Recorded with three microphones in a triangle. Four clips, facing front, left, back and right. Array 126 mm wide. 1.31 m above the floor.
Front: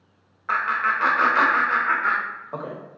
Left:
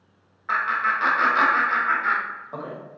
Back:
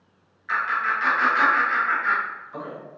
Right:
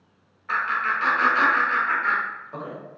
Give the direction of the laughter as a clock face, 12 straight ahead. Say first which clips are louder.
Left 1 dB, front 2 dB; 11 o'clock.